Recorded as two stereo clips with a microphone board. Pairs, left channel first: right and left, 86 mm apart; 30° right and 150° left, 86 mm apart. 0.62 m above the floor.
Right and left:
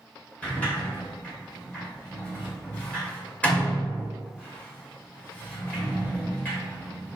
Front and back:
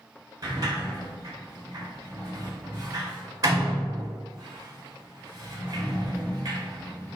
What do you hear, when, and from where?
0.4 s a sliding door: 165° right, 1.4 m